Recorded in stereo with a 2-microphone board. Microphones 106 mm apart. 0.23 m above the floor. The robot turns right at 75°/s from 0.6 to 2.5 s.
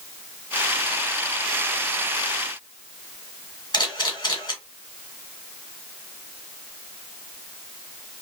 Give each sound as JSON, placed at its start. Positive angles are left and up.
{"t": 3.7, "sound": "a camera shutter", "side_deg": 35, "distance_m": 1.5}